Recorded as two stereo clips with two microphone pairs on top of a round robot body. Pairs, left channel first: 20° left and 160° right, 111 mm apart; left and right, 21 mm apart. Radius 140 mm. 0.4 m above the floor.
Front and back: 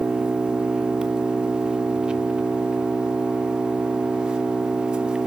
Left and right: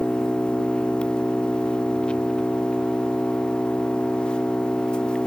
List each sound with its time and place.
0.0 s an engine running: 120° left, 0.9 m